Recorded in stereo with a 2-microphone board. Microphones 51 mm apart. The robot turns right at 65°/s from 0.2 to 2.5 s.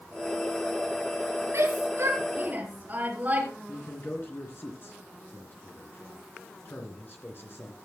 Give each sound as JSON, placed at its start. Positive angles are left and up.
{"t": 1.5, "sound": "a shout", "side_deg": -50, "distance_m": 3.0}
{"t": 3.7, "sound": "a man speaking", "side_deg": 45, "distance_m": 3.0}